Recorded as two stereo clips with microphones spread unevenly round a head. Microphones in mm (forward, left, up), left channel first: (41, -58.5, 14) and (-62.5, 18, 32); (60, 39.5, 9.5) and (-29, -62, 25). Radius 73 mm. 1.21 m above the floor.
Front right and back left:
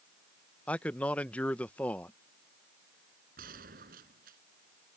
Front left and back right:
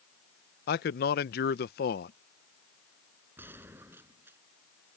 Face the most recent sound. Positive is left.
turn(degrees=155)